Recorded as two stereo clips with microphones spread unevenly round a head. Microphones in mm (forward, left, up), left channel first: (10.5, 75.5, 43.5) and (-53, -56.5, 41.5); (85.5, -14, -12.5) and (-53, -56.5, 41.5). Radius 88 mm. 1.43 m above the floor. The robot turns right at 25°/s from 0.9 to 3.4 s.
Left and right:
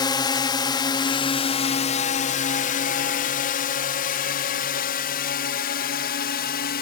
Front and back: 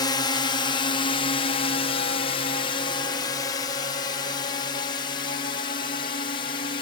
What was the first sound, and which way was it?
A drone, 10° left.